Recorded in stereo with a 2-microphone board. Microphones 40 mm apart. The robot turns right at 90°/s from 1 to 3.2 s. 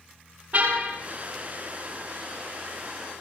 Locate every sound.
0.5 s a car horn: 45° right (ahead or behind), 7 m